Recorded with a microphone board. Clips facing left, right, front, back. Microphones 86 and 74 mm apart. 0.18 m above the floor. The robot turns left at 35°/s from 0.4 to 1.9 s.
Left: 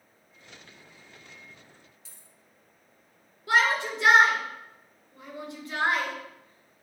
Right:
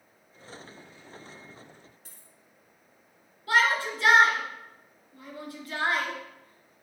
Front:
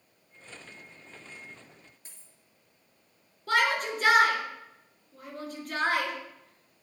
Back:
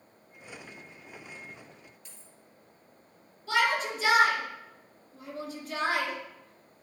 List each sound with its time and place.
2.0 s a dropped coin: 55° right, 1.3 m
3.5 s a shout: 25° left, 2 m